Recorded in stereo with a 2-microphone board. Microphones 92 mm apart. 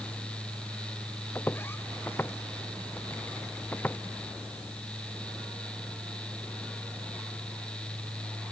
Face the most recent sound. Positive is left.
turn(degrees=20)  # may be behind; listen again after turning